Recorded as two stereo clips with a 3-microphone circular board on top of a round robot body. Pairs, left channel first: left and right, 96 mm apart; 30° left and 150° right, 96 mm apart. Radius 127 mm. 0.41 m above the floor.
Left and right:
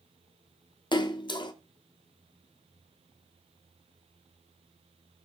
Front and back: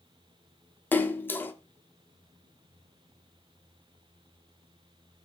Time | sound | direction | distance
0.9 | a splash | 95° left | 0.6 m